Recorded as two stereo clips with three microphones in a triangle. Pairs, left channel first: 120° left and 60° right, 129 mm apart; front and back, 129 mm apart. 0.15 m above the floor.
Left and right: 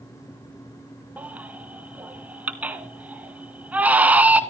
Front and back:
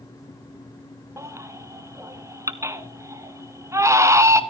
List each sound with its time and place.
1.2 s a baby crying: 130° right, 1.2 m